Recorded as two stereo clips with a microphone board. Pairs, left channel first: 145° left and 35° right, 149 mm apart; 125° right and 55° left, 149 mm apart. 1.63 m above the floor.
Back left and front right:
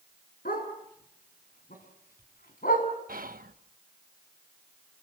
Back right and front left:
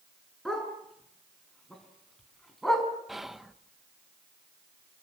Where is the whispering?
35° right, 1.4 m.